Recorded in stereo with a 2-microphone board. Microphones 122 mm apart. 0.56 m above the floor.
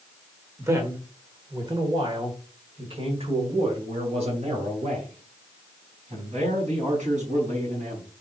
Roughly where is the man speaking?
Right.